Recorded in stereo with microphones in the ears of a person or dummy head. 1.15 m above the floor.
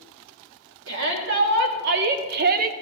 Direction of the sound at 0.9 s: 60° right (ahead or behind).